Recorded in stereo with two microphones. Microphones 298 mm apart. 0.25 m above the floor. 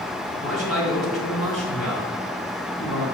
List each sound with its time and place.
0.4 s a man speaking: 55° left (ahead or behind), 2.5 m